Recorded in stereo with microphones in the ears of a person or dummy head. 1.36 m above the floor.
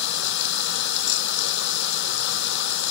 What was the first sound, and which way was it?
Running water, 65° left (ahead or behind).